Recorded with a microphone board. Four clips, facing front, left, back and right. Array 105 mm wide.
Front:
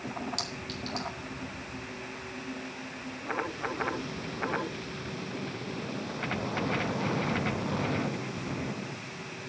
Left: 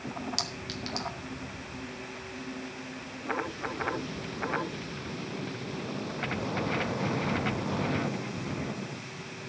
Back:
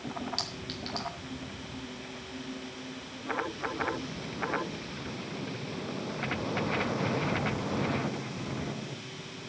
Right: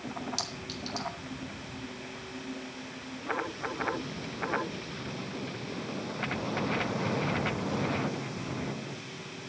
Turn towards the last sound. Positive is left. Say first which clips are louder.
# left 1 dB, front 1 dB
turn(degrees=120)